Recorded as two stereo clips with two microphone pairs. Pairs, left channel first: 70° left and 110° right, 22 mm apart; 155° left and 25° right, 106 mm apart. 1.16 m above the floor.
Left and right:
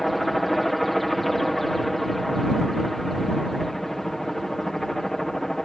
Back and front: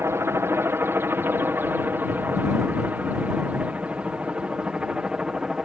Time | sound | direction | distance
0.0 | a helicopter | 5° right | ?